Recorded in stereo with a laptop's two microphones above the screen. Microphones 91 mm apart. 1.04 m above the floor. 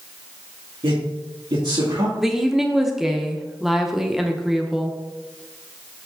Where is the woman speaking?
5° right (ahead or behind), 0.7 m.